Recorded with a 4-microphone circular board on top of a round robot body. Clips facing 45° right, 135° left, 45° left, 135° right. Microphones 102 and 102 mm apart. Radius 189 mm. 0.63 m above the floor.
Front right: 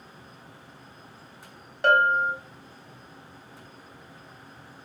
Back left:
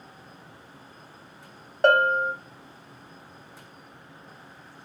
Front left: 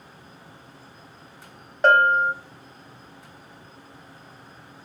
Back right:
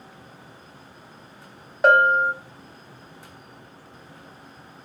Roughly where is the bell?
Behind left.